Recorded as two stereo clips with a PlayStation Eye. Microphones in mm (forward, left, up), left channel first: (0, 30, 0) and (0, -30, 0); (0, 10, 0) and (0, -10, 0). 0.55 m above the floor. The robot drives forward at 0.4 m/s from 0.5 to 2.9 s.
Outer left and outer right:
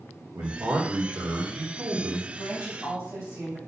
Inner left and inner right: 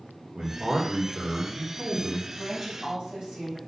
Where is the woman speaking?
50° right (ahead or behind), 3 m; by 3.6 s 55° right (ahead or behind), 2.5 m.